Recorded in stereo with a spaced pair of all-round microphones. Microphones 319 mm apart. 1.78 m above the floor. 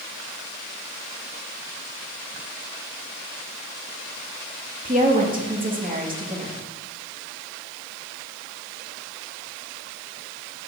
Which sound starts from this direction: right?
A woman speaking, at 4.8 s.